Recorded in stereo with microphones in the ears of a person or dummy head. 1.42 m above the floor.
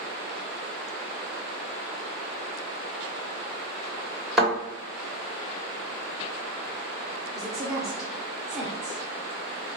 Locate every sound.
4.4 s a thud: 5° right (ahead or behind), 1.7 m
7.3 s a woman speaking: centre (ahead or behind), 0.6 m